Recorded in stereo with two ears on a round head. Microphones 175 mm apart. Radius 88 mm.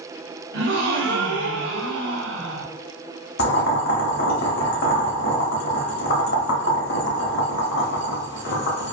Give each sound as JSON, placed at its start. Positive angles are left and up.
{"t": 0.5, "sound": "a gasp", "side_deg": -70, "distance_m": 0.7}
{"t": 3.4, "sound": "boiling", "side_deg": 60, "distance_m": 0.7}